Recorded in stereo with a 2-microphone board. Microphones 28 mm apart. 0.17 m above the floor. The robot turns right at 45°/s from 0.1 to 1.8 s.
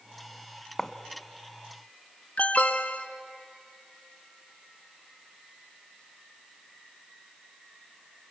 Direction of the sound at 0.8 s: 15° left (ahead or behind).